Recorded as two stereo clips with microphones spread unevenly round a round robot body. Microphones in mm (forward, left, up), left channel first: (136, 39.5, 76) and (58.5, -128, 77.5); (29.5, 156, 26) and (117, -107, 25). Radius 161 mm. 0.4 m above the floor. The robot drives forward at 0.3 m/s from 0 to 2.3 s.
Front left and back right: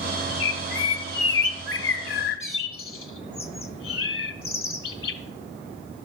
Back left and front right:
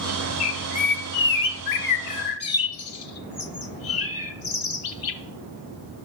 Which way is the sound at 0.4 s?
65° left.